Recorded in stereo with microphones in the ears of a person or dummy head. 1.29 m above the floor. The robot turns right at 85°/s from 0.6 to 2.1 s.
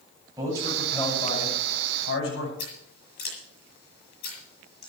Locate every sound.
0.4 s a man speaking: 20° right, 9.5 m; by 2.5 s 110° left, 9.5 m
2.6 s scissors: 60° left (ahead or behind), 9 m